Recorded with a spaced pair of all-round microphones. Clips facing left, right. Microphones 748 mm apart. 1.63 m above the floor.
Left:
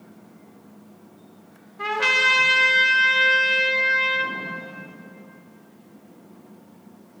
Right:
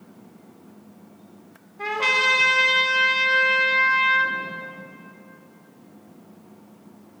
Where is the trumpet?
45° left (ahead or behind), 1.4 m.